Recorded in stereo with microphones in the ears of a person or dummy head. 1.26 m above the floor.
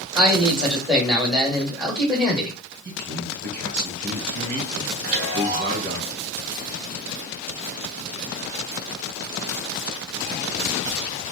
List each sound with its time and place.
0.1 s a man speaking: 20° right (ahead or behind), 1.8 m
2.9 s a man speaking: 55° right (ahead or behind), 1.8 m
5.0 s a chime: 30° right (ahead or behind), 3 m